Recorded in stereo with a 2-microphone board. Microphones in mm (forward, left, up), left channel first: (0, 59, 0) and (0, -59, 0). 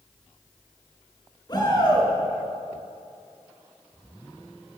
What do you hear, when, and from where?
1.5 s a shout: 40° left (ahead or behind), 4.5 m